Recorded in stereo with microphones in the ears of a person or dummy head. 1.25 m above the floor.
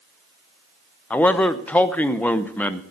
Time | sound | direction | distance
1.1 | a man speaking | 5° left (ahead or behind) | 0.6 m